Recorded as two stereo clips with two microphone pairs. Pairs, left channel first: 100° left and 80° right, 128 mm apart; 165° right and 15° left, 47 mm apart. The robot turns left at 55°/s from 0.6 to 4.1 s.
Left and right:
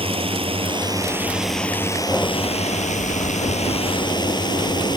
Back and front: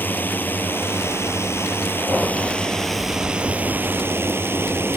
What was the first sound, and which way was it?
A drone, 120° right.